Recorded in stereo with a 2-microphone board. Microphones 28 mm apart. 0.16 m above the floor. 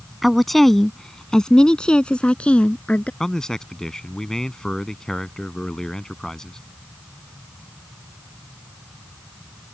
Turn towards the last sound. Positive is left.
turn(degrees=20)  # may be behind; listen again after turning